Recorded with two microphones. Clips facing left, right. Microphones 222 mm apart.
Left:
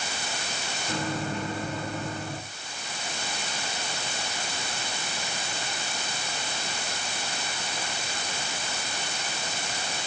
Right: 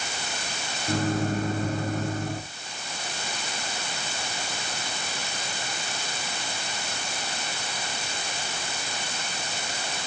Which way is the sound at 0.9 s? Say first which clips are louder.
Right 6 dB; 45° right (ahead or behind).